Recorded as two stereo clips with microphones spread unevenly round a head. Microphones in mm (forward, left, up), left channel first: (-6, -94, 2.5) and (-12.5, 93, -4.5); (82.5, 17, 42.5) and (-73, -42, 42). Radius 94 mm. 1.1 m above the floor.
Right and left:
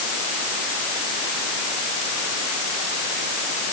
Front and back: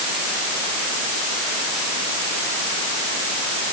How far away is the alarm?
No alarm in this recording.